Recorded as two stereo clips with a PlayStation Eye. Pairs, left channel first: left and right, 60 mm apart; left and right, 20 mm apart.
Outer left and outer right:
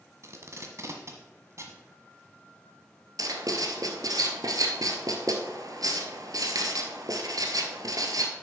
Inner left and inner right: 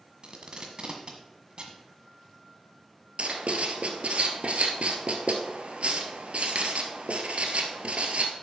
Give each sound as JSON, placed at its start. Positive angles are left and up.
{"t": 0.2, "sound": "tape being pulled", "side_deg": -50, "distance_m": 1.5}
{"t": 3.2, "sound": "writing", "side_deg": -80, "distance_m": 1.2}